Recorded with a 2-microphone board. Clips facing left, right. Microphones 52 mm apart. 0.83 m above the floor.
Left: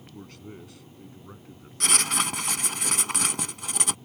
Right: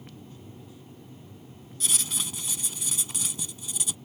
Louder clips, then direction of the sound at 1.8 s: Left 9 dB; 70° left (ahead or behind).